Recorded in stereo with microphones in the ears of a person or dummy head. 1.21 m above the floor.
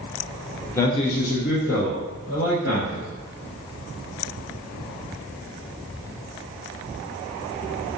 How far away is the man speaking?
About 0.6 m.